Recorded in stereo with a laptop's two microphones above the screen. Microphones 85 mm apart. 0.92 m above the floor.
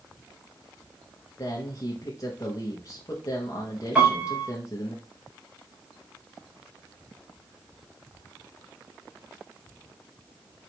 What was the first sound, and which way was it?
A man speaking, 40° left (ahead or behind).